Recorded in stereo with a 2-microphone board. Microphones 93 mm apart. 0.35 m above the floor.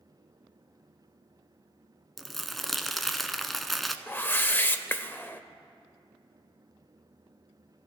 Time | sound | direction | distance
2.2 | crumpling | centre (ahead or behind) | 0.6 m
4.1 | a whoosh | 20° left (ahead or behind) | 0.5 m